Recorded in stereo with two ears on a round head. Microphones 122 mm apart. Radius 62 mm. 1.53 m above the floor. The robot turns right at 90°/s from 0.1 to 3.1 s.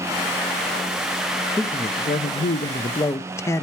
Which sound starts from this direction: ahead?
A man speaking, at 1.6 s.